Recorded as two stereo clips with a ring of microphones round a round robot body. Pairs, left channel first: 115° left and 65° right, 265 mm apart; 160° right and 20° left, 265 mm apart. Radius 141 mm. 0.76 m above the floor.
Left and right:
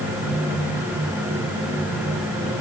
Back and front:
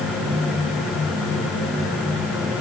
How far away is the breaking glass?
No breaking glass in this recording.